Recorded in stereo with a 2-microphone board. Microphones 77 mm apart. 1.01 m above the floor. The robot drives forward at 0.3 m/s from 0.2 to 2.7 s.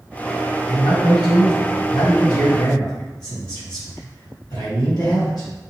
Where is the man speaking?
65° left (ahead or behind), 1.6 m; by 5.5 s 60° left (ahead or behind), 1.6 m.